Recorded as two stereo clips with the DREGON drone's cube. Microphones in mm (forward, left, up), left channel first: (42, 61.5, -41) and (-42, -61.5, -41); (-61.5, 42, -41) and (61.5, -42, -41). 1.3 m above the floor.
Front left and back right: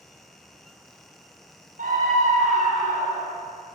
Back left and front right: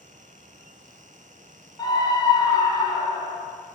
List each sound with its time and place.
1.8 s a scream: 150° right, 4 m